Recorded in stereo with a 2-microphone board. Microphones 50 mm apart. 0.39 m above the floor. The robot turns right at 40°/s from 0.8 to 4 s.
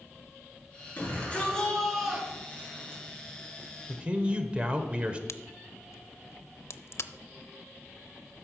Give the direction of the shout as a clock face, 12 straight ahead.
7 o'clock.